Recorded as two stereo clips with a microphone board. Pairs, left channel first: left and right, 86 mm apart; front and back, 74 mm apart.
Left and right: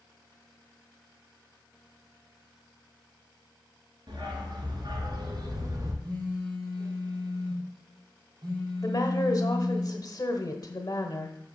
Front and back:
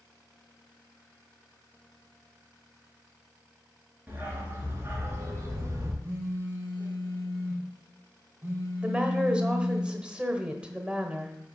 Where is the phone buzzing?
125° right, 4 m.